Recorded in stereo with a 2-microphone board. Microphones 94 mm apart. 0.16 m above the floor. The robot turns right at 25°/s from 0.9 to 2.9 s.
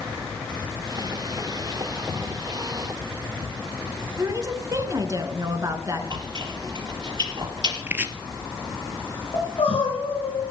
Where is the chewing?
50° right (ahead or behind), 4 m.